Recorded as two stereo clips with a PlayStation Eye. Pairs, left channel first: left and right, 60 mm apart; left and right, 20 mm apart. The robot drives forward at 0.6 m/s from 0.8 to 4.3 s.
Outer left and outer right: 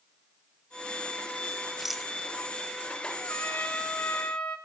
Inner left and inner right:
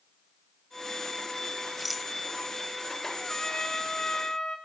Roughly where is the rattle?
Centre.